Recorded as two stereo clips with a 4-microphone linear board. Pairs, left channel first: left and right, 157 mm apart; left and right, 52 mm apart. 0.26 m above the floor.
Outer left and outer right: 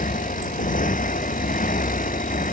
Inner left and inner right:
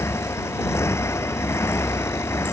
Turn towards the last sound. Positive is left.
turn(degrees=60)  # may be behind; listen again after turning